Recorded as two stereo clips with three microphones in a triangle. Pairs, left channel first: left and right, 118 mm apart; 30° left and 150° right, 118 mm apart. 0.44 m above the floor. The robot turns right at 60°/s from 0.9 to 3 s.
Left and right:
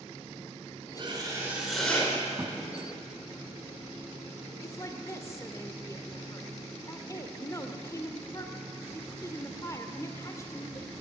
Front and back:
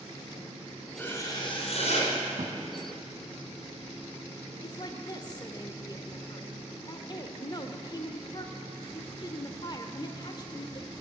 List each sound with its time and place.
1.0 s writing: 40° right, 4 m; by 2.1 s 25° left, 4 m
2.4 s a thud: 165° right, 1.7 m; by 2.5 s 155° right, 1.7 m
4.6 s a woman speaking: 45° left, 1.1 m